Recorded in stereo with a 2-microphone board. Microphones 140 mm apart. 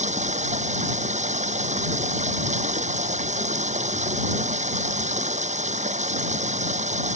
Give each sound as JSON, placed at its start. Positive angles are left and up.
{"t": 0.0, "sound": "running water", "side_deg": -55}